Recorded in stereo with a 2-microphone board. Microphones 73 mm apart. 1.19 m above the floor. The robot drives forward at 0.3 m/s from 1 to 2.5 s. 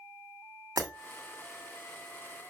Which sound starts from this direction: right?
Breaking glass, at 0.8 s.